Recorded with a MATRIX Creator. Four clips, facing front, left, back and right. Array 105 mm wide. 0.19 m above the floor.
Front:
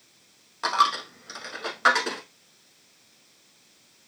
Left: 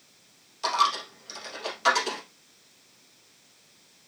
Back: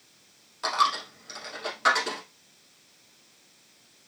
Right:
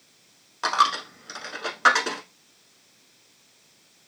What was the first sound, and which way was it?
A dropped coin, 60° right.